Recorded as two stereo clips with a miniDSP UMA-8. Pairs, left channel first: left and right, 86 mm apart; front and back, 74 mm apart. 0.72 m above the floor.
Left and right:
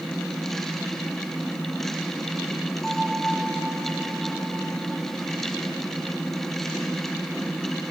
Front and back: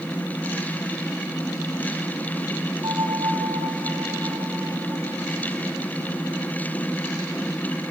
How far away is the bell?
About 8 m.